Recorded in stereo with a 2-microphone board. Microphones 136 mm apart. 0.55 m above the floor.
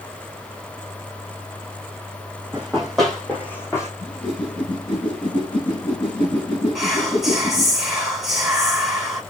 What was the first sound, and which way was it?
Running footsteps, 10° right (ahead or behind).